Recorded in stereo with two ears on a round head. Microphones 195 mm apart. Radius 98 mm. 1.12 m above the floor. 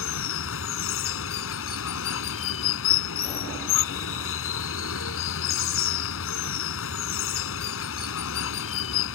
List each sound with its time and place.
0.0 s running water: 70° left (ahead or behind)